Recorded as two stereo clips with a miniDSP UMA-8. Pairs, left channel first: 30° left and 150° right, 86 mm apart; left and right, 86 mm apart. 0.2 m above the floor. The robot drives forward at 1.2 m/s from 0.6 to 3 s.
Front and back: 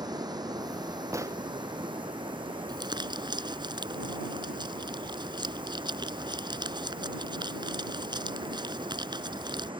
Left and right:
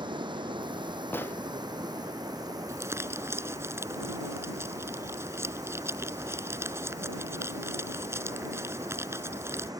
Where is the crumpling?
140° right; by 9.7 s 145° right.